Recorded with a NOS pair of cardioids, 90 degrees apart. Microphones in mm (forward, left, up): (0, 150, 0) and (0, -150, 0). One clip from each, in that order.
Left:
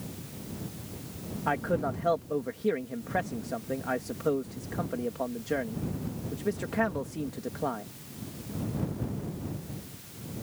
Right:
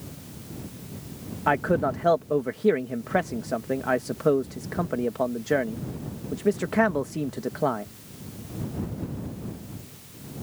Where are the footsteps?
I don't hear footsteps.